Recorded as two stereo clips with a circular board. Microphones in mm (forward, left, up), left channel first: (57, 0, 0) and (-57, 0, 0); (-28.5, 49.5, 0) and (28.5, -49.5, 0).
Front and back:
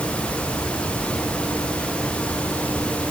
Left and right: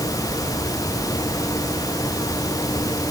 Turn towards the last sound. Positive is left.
No sound to turn to.